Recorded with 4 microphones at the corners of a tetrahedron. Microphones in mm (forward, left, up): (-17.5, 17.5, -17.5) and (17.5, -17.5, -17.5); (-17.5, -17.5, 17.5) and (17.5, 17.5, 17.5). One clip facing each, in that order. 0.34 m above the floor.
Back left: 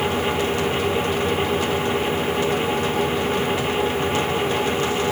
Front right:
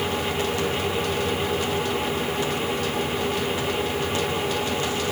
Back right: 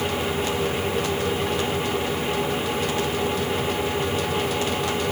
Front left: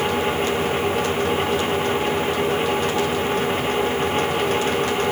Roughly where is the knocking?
I don't hear knocking.